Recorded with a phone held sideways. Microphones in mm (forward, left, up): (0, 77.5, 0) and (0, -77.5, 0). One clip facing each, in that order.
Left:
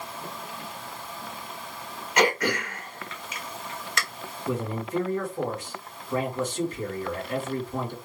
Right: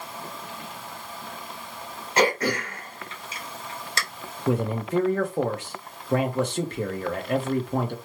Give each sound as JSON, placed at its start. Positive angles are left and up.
{"t": 2.2, "sound": "throat clearing", "side_deg": -30, "distance_m": 1.2}
{"t": 4.5, "sound": "a man speaking", "side_deg": -70, "distance_m": 1.0}